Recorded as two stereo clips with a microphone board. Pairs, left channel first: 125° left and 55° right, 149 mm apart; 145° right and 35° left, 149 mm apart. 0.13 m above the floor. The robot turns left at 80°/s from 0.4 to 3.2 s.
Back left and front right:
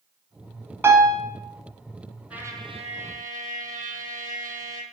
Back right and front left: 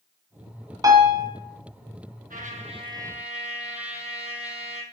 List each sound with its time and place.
0.8 s a piano: 5° left, 1.7 m; by 1.3 s 30° right, 1.7 m
2.3 s a trumpet: 25° left, 1.4 m; by 4.8 s 45° right, 1.4 m